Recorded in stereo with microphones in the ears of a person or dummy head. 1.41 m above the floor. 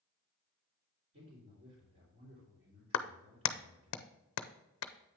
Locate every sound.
1.1 s a man speaking: 40° right (ahead or behind), 3.5 m
2.9 s a clap: 70° left (ahead or behind), 0.6 m